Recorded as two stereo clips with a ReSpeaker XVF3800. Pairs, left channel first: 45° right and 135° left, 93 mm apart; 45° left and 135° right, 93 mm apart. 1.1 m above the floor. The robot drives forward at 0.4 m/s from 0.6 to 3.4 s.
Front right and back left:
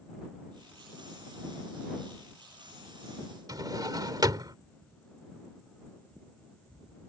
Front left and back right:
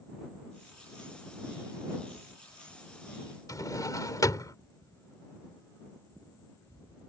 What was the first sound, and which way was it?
A drawer, 90° left.